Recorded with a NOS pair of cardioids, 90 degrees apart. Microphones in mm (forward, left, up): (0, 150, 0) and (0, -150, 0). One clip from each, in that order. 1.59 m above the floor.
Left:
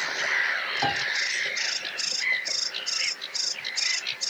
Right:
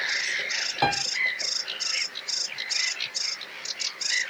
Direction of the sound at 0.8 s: 50° right.